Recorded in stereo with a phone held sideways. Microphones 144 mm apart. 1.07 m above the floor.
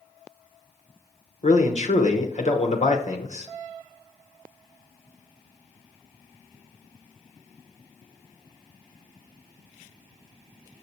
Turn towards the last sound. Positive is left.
turn(degrees=55)  # may be behind; listen again after turning